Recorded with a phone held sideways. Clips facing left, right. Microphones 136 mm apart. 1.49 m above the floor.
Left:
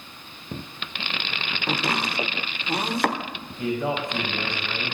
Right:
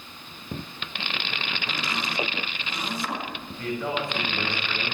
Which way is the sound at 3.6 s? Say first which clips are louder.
Left 3 dB; 20° left (ahead or behind).